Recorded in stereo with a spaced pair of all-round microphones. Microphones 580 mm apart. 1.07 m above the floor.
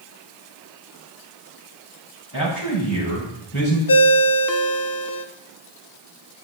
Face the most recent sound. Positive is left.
turn(degrees=40)  # may be behind; listen again after turning